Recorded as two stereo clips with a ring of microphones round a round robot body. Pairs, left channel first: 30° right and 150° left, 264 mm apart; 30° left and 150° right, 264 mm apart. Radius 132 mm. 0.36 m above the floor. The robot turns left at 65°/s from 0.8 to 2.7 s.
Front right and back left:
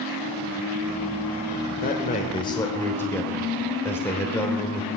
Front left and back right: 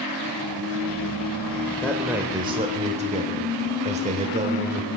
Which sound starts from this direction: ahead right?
A man speaking, at 1.8 s.